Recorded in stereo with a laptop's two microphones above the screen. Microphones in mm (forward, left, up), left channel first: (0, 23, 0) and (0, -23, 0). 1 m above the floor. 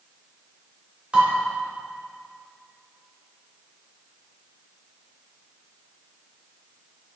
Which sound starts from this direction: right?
Dishes clattering, at 1.1 s.